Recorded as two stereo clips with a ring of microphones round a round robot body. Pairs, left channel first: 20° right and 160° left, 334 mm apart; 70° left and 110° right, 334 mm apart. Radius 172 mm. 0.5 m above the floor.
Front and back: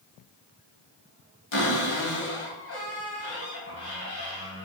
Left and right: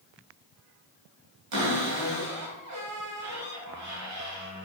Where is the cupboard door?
70° right, 3 m.